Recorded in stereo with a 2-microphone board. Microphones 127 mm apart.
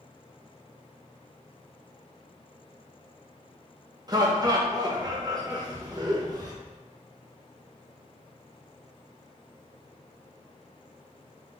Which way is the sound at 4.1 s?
30° right (ahead or behind).